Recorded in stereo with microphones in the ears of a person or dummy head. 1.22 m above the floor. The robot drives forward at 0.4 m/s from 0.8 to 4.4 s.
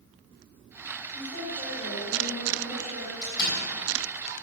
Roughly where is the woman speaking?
Left.